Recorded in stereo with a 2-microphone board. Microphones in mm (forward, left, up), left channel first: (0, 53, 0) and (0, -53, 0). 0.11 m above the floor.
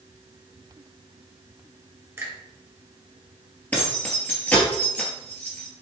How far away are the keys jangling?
About 1.5 m.